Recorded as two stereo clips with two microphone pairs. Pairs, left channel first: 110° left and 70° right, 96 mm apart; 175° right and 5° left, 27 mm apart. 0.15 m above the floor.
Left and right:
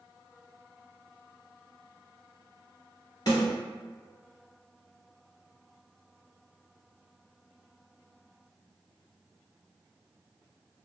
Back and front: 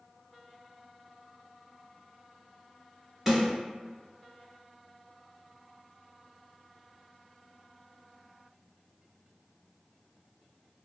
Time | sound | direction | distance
3.3 | a snare drum | 75° left | 1.9 m